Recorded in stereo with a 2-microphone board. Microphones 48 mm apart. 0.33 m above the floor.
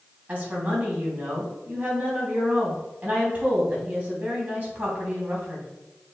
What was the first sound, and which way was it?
A woman speaking, 30° right (ahead or behind).